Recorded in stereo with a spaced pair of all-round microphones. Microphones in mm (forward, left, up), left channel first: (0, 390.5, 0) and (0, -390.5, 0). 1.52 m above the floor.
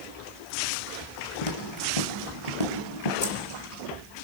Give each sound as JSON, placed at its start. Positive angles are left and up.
{"t": 1.4, "sound": "footsteps", "side_deg": 45, "distance_m": 2.5}
{"t": 3.2, "sound": "keys jangling", "side_deg": 35, "distance_m": 2.0}